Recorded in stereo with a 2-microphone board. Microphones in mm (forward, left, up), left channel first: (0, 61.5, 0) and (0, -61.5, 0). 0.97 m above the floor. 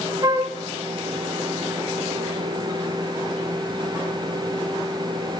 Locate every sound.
0.2 s a flute: 35° right (ahead or behind), 1.8 m